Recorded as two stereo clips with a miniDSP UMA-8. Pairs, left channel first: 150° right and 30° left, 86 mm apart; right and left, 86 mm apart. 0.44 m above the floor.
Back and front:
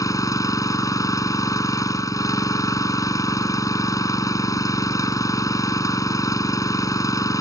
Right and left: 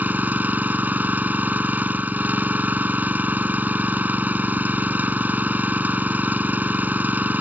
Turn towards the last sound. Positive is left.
turn(degrees=160)